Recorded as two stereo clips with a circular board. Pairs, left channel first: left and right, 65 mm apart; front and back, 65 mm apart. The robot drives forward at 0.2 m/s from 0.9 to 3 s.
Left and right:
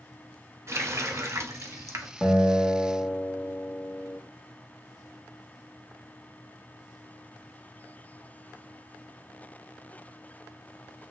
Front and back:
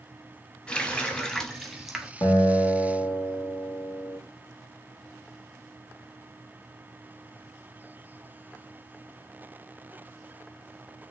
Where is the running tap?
70° right, 0.6 m; by 2.1 s 100° right, 0.6 m.